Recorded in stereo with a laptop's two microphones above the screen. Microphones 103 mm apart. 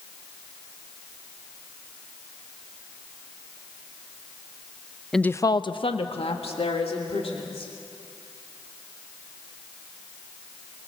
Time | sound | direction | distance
5.1 | a woman speaking | 5° left (ahead or behind) | 0.6 m